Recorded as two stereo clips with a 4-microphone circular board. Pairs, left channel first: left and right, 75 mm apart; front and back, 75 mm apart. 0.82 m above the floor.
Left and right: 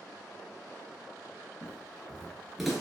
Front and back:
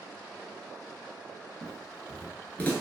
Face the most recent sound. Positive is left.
turn(degrees=-5)